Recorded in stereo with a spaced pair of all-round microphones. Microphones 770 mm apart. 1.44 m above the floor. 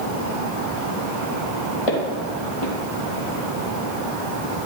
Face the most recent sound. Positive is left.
turn(degrees=45)  # may be behind; listen again after turning